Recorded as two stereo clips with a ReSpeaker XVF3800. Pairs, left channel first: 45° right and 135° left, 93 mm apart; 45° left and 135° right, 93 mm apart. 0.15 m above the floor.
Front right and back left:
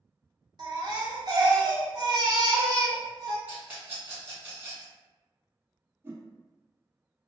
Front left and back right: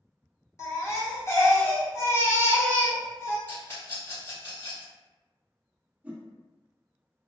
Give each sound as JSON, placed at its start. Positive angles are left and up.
{"t": 0.6, "sound": "a baby crying", "azimuth_deg": 100, "distance_m": 0.9}
{"t": 3.5, "sound": "a rattle", "azimuth_deg": 80, "distance_m": 1.5}
{"t": 6.0, "sound": "a whoosh", "azimuth_deg": 170, "distance_m": 0.6}